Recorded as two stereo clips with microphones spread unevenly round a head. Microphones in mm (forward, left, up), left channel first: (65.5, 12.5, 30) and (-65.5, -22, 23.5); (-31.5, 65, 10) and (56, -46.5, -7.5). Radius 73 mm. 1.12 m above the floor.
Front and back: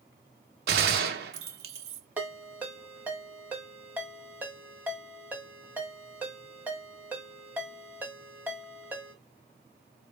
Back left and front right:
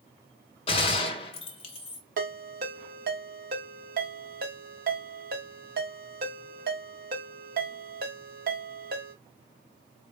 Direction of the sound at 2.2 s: 85° right.